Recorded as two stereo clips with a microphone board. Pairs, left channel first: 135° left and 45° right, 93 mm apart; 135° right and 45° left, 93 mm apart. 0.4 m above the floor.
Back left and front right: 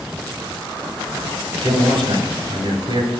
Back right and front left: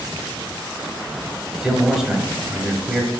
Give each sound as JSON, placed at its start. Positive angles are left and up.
{"t": 1.6, "sound": "a man speaking", "azimuth_deg": -40, "distance_m": 2.0}